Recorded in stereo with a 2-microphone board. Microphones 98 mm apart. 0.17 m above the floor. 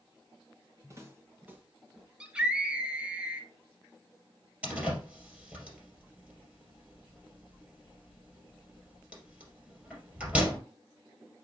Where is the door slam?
10° right (ahead or behind), 3 m.